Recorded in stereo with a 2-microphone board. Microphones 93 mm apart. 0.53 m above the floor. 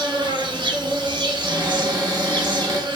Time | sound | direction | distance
0.0 | an insect | 65° right (ahead or behind) | 0.9 m
1.4 | a cupboard door | 40° right (ahead or behind) | 1.0 m